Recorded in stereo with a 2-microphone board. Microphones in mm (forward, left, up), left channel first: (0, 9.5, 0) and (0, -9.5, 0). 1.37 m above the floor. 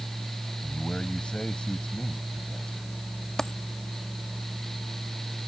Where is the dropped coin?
30° left (ahead or behind).